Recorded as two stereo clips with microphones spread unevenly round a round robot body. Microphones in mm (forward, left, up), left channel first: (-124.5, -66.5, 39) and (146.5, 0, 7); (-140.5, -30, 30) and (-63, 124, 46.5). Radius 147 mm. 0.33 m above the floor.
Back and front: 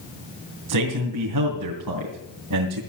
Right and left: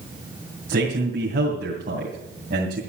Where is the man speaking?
10° left, 2.5 m.